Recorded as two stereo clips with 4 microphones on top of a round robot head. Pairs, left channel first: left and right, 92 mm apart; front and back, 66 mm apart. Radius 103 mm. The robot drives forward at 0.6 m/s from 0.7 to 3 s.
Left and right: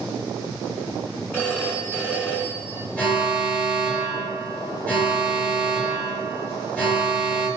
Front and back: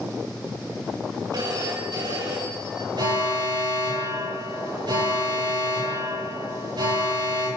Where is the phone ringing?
160° left, 7.5 m.